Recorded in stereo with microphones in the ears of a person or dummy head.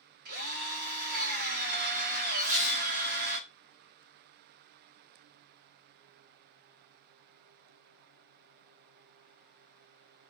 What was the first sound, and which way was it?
A drill, 50° right (ahead or behind).